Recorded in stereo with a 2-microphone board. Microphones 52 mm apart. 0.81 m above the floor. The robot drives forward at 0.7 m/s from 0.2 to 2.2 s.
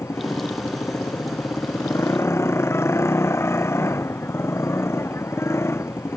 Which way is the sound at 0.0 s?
60° left (ahead or behind).